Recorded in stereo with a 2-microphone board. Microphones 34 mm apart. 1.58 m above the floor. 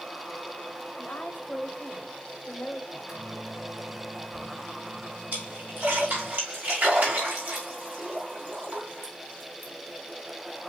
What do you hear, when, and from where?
1.0 s a woman speaking: 70° left (ahead or behind), 1.2 m
2.9 s a microwave: 15° right (ahead or behind), 2 m
5.3 s a splash: 60° right (ahead or behind), 3 m